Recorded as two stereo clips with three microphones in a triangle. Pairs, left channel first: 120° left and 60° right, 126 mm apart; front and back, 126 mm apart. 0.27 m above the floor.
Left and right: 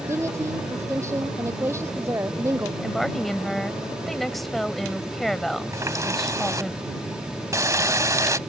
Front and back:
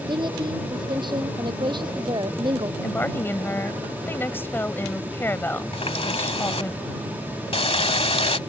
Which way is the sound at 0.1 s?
130° right.